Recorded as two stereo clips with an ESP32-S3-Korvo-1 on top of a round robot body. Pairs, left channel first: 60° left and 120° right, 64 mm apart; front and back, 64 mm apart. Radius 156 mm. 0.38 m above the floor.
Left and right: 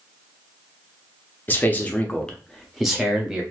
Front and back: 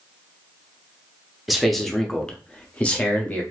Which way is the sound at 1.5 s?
95° left.